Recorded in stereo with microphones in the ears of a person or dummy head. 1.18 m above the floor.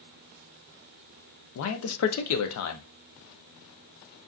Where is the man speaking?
85° left, 0.5 m.